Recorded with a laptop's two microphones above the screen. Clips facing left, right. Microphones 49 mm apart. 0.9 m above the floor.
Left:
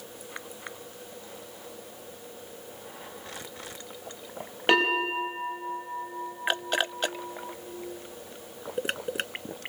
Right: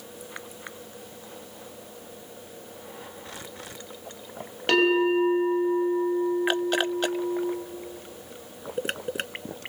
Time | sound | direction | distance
4.7 | a bell | 20° left (ahead or behind) | 6 m